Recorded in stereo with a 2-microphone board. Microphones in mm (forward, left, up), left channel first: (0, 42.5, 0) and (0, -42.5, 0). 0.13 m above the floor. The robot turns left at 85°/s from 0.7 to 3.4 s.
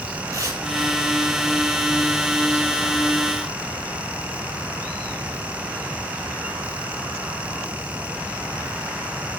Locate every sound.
0.3 s tearing paper: 35° right (ahead or behind), 4 m